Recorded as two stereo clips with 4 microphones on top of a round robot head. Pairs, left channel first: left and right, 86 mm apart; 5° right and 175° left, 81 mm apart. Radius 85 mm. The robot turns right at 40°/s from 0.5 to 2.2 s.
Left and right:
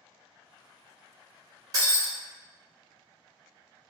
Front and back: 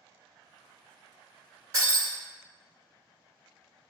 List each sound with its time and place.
1.7 s breaking glass: 120° right, 1.7 m; by 2.1 s 100° right, 1.7 m